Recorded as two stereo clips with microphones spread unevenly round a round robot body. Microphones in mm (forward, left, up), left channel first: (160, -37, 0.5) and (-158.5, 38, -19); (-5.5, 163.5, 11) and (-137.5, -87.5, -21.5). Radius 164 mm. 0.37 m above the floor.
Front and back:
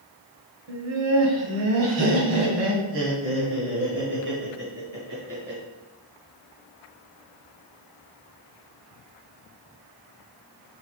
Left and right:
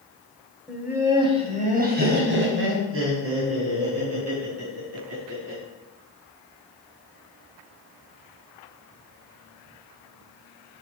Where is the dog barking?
I don't hear a dog barking.